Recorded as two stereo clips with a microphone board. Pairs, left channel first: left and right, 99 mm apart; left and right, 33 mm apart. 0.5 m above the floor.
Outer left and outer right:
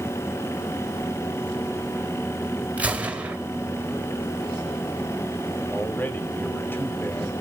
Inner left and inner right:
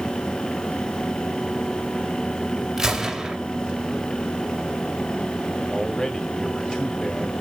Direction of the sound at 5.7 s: 20° left (ahead or behind).